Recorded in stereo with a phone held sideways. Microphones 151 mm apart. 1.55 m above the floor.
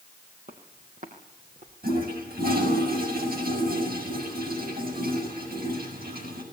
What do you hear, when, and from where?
0.5 s footsteps: 65° right (ahead or behind), 3.5 m
1.8 s a toilet flushing: 85° right, 6.5 m